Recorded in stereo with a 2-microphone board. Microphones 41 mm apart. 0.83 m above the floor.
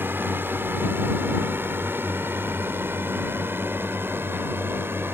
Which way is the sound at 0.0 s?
60° right (ahead or behind).